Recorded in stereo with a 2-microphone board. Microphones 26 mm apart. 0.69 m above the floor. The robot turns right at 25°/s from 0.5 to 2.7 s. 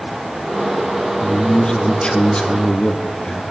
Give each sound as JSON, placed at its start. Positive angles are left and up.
{"t": 1.2, "sound": "a man speaking", "azimuth_deg": 55, "distance_m": 1.2}